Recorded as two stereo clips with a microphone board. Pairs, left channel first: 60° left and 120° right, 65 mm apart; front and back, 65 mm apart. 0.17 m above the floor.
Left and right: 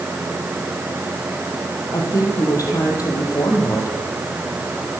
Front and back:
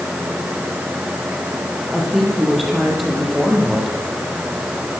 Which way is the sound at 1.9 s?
90° left.